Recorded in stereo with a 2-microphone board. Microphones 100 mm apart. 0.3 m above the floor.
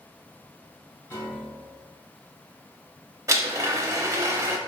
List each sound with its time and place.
1.1 s a piano: 20° left (ahead or behind), 2.0 m
3.3 s a blender: 35° right (ahead or behind), 0.6 m